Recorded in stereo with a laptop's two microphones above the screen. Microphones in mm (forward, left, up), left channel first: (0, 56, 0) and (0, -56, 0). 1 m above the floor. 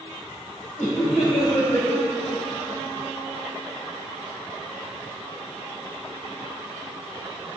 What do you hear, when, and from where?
0.8 s laughter: 80° left, 3.5 m